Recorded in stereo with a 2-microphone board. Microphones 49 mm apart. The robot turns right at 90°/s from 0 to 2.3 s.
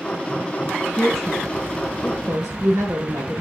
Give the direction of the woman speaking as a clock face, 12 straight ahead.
7 o'clock.